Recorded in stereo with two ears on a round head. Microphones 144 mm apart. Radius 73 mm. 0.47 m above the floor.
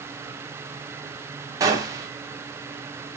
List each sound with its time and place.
1.6 s a gunshot: 20° right (ahead or behind), 0.6 m